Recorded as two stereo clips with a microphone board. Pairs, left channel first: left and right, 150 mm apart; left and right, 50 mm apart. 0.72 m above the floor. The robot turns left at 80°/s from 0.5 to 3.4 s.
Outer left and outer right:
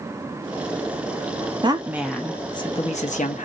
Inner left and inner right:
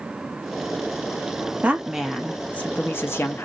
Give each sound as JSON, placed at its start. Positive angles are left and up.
{"t": 1.6, "sound": "a woman speaking", "azimuth_deg": -140, "distance_m": 0.7}